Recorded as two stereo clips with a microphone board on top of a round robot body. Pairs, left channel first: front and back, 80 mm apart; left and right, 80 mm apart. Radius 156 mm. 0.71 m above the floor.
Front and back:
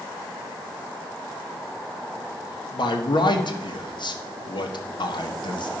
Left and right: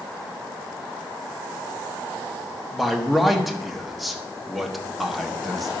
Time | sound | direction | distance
2.7 | a man speaking | straight ahead | 1.7 m